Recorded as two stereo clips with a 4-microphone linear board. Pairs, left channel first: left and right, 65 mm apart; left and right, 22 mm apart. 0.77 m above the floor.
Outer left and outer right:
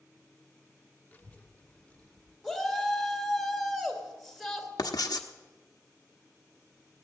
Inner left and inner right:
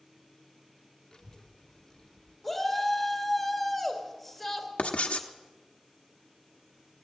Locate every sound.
1.1 s a child speaking: 30° left (ahead or behind), 1.3 m; by 2.3 s 20° left (ahead or behind), 2 m
2.4 s a shout: centre (ahead or behind), 2.5 m
4.8 s writing: 80° left, 1.0 m